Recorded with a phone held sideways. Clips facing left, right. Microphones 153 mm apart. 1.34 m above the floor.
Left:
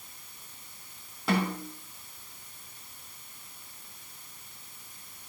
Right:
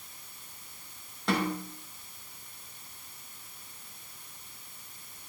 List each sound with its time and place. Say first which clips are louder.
1.3 s a snare drum: left 1 dB; 5° left (ahead or behind), 4 m